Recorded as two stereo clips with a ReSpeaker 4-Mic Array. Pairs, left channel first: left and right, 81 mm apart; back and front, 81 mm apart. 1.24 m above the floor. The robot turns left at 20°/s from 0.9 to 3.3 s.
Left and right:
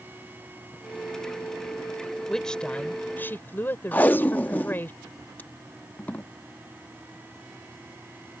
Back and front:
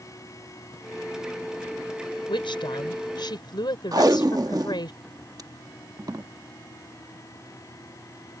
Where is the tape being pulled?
25° left.